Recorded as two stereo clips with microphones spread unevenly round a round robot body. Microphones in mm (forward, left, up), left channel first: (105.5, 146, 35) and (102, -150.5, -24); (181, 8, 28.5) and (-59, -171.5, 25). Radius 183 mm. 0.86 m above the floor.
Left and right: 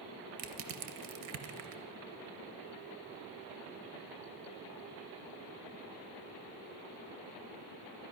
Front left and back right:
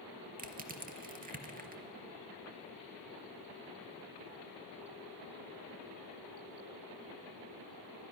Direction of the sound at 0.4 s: 85° right.